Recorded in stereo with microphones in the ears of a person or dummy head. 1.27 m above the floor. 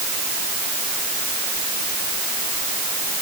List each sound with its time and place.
Only background noise.